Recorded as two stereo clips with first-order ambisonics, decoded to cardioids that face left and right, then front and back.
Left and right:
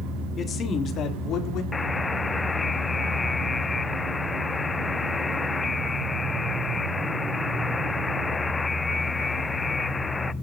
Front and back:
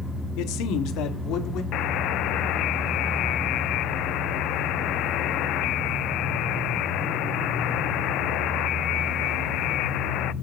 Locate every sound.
0.4 s a man speaking: 25° left, 3 m; by 1.6 s 45° left, 3.5 m
1.7 s a buzzer: 15° left, 0.5 m